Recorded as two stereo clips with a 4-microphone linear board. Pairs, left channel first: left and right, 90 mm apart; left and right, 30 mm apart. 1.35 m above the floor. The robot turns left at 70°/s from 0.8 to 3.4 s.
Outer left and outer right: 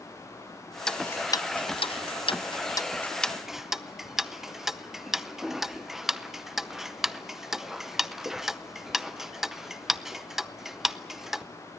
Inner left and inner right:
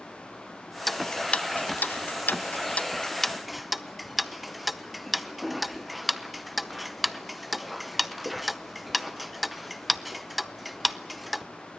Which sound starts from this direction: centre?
Ticking, at 0.9 s.